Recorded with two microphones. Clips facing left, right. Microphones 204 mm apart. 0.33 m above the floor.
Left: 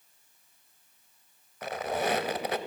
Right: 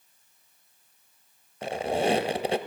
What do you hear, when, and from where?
1.6 s a squeak: 30° right (ahead or behind), 0.5 m